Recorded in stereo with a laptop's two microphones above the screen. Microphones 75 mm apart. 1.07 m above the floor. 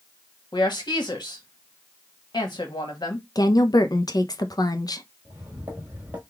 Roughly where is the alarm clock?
I don't hear an alarm clock.